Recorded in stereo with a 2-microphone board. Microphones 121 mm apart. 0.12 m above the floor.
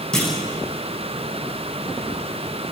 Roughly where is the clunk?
Centre.